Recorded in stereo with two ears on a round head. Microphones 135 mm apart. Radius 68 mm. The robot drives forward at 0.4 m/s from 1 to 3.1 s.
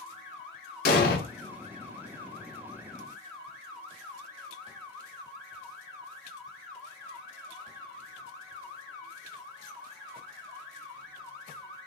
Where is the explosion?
70° left (ahead or behind), 1.1 m.